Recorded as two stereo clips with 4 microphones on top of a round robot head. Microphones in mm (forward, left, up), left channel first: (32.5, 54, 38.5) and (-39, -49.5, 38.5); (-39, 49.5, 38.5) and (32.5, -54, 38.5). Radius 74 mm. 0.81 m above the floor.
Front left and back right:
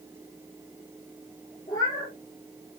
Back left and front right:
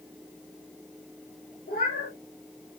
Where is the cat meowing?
120° left, 7 m.